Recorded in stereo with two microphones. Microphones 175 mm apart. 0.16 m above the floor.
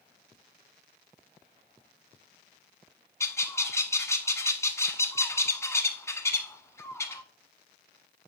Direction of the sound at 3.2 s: 15° left (ahead or behind).